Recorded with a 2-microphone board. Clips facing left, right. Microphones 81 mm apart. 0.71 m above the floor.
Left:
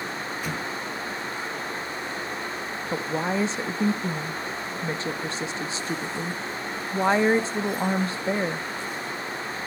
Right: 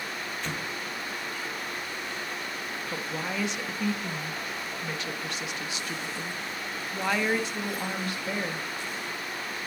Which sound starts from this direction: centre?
An explosion, at 0.4 s.